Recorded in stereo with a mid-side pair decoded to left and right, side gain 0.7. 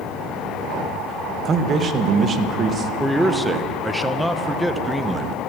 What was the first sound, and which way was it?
A man speaking, 30° right.